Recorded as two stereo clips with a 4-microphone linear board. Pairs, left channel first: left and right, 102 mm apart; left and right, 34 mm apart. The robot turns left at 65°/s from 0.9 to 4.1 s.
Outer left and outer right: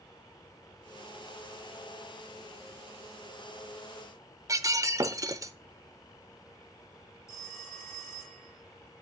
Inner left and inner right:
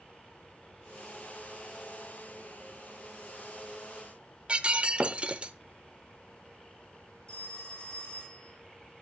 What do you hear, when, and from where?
4.5 s breaking glass: 35° right (ahead or behind), 0.7 m
7.3 s a phone ringing: 30° left (ahead or behind), 3.5 m